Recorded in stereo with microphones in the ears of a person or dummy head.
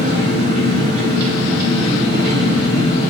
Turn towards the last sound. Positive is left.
turn(degrees=-50)  # may be behind; listen again after turning